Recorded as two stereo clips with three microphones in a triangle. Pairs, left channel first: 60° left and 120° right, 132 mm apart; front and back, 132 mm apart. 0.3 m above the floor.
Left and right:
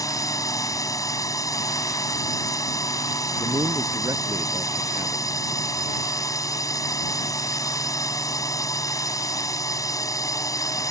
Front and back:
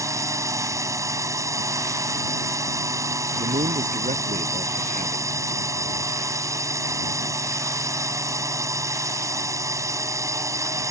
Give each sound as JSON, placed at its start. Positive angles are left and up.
{"t": 0.0, "sound": "a drone", "azimuth_deg": 120}
{"t": 3.4, "sound": "a man speaking", "azimuth_deg": 175}